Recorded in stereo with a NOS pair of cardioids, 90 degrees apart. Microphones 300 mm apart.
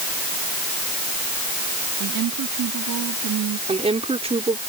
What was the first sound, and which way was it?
A woman speaking, 70° right.